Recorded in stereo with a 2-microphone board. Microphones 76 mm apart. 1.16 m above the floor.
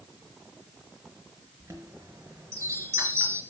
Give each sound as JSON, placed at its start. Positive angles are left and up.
{"t": 1.6, "sound": "a chime", "side_deg": -35, "distance_m": 4.0}